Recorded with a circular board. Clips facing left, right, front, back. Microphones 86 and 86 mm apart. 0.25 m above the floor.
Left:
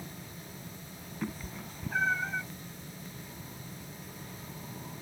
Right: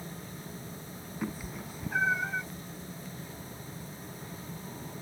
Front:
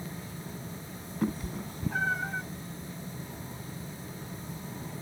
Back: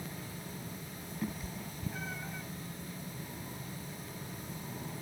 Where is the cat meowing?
10° right.